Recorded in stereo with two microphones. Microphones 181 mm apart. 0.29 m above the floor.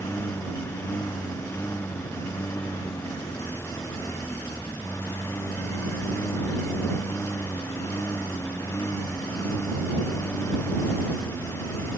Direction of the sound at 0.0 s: 15° left (ahead or behind).